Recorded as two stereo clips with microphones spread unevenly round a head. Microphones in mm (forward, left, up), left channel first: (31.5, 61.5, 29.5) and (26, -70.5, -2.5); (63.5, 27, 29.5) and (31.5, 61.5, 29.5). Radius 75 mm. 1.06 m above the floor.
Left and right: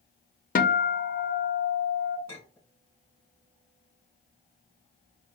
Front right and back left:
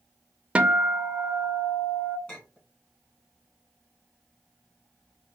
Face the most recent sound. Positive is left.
turn(degrees=15)